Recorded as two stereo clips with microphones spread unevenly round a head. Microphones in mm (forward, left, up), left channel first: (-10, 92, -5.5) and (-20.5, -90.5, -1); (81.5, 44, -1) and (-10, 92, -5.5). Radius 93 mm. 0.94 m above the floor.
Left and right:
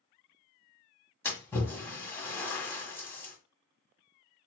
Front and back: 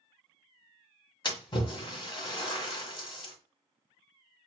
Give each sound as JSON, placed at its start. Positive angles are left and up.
{"t": 1.2, "sound": "a splash", "azimuth_deg": 10, "distance_m": 1.7}